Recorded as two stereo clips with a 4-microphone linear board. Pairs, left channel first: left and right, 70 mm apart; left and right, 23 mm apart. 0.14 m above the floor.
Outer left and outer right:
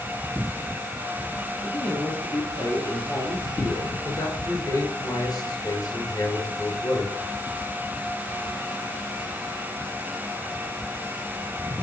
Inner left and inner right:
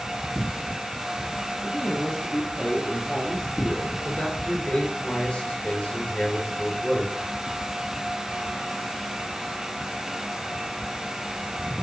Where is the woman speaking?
15° left (ahead or behind), 2.5 m.